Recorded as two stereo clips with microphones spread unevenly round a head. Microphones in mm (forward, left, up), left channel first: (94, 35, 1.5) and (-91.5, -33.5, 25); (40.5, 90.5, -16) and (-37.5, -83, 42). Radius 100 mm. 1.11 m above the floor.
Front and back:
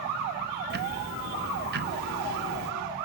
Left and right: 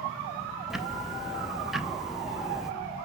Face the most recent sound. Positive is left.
turn(degrees=165)